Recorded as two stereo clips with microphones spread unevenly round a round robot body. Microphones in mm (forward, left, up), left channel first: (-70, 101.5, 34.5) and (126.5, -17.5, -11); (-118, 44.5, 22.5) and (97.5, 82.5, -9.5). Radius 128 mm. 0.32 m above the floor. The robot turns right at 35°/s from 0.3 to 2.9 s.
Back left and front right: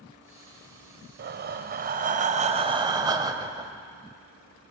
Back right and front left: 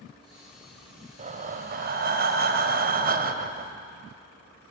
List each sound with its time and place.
1.2 s breathing: 35° right, 0.8 m; by 3.7 s 25° left, 0.8 m